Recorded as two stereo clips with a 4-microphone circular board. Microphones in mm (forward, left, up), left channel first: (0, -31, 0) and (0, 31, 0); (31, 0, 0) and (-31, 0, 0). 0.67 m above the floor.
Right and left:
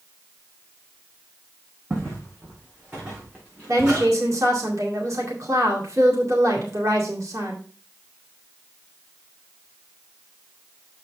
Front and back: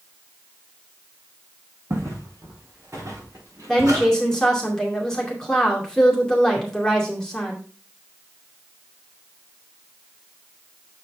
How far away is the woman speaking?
About 2 m.